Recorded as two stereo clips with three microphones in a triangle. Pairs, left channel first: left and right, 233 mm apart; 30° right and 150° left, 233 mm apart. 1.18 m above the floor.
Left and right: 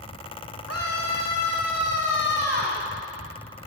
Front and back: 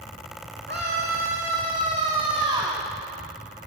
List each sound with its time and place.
0.7 s a scream: 105° left, 2.5 m; by 2.8 s 80° left, 2.5 m